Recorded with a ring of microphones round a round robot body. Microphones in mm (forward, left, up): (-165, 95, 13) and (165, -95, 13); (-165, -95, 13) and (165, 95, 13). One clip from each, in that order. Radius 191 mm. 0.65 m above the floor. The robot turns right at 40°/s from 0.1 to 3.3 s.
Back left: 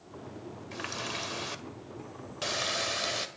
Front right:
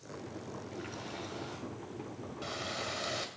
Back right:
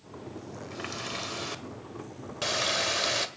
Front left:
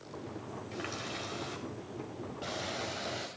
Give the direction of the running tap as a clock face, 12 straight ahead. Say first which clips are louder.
Back left 10 dB, back right 4 dB; 8 o'clock.